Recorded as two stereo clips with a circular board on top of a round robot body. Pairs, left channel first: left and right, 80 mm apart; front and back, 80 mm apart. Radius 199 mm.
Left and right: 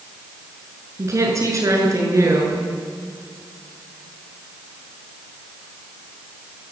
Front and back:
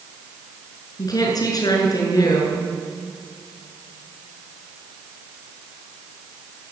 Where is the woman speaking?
40° right, 8 m.